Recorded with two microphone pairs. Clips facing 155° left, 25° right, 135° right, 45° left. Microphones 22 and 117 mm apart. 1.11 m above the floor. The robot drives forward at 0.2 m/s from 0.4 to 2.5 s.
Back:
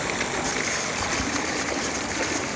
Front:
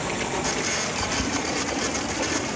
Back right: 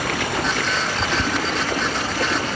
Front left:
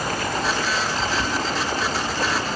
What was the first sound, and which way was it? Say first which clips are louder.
Running water: even, back right 1 dB; 135° right.